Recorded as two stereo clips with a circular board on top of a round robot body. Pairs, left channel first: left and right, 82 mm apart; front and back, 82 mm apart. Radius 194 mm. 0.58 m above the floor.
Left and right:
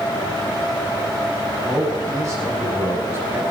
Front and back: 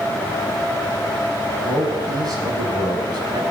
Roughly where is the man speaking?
Behind right.